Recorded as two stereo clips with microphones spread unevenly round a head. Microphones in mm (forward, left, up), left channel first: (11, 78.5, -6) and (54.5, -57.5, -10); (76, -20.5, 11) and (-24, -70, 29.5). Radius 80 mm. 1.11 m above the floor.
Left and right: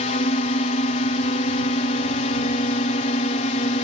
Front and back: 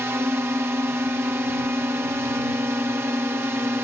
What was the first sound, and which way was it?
A drone, 130° left.